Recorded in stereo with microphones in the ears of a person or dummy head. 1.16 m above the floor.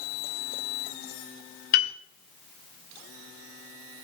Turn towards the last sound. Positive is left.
turn(degrees=50)  # may be behind; listen again after turning